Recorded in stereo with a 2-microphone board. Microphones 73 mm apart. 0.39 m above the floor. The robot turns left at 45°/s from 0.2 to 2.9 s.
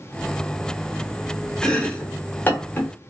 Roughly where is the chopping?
Centre.